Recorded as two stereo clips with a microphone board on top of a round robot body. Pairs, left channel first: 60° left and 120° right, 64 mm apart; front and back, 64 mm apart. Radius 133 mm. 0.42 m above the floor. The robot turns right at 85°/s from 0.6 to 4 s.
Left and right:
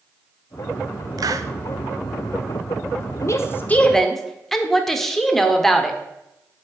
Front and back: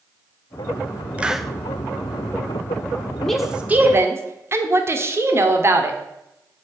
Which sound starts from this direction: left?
A woman speaking, at 3.2 s.